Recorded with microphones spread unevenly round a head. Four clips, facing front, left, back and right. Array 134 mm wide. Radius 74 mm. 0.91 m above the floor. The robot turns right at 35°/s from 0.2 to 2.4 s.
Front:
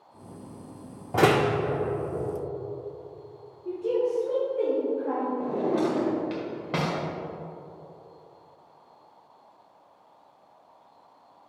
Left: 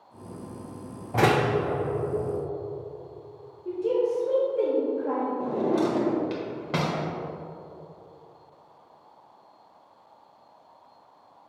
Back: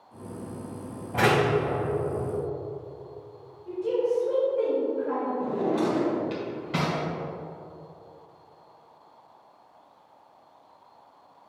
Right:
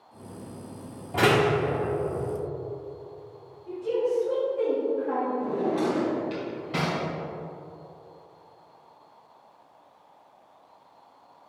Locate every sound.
1.1 s a door slam: 10° left, 1.5 m; by 1.5 s 25° left, 1.5 m
3.6 s a woman speaking: 45° left, 2.5 m
5.4 s a drawer: 40° left, 1.4 m